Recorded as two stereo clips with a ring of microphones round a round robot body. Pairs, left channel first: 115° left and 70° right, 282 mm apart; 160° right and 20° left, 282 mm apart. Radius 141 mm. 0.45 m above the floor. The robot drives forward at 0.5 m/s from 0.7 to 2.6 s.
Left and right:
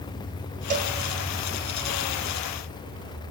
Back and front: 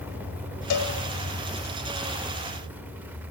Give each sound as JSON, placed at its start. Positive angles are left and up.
{"t": 0.7, "sound": "a cowbell", "azimuth_deg": -130, "distance_m": 2.0}